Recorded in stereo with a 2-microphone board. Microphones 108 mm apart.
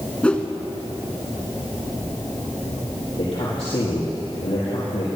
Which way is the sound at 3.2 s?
65° left (ahead or behind).